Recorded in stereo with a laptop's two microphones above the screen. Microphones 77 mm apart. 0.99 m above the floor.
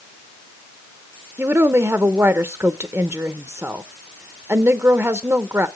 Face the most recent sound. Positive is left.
turn(degrees=-35)  # may be behind; listen again after turning